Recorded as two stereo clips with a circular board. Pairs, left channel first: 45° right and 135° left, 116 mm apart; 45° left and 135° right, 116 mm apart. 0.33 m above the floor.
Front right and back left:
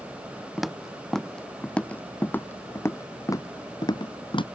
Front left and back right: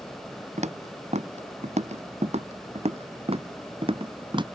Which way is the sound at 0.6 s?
135° right.